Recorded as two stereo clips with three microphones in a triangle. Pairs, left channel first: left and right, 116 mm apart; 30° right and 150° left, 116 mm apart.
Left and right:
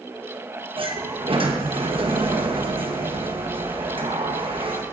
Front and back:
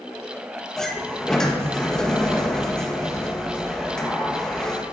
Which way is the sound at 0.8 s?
115° right.